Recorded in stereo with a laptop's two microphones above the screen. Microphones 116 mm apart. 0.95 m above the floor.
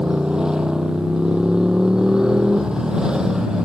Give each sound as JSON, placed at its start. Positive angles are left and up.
{"t": 0.0, "sound": "a motorcycle", "side_deg": -5}